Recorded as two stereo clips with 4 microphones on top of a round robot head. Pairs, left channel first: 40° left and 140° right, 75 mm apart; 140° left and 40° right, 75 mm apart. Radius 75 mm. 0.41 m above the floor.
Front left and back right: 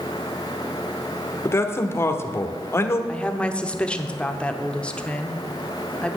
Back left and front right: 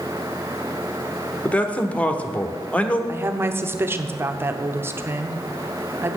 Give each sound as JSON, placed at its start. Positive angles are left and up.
{"t": 1.4, "sound": "a man speaking", "azimuth_deg": 75, "distance_m": 1.2}
{"t": 3.1, "sound": "a woman speaking", "azimuth_deg": -20, "distance_m": 0.9}